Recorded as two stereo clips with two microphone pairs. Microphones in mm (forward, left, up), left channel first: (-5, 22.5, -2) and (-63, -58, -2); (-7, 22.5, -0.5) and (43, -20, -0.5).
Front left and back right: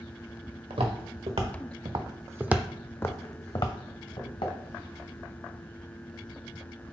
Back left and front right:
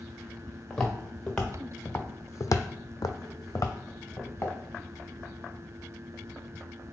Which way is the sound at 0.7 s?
135° right.